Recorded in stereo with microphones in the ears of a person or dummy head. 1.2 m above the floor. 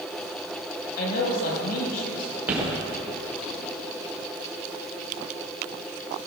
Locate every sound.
1.0 s a man speaking: 50° left (ahead or behind), 4.5 m
2.5 s footsteps: 10° right (ahead or behind), 5.5 m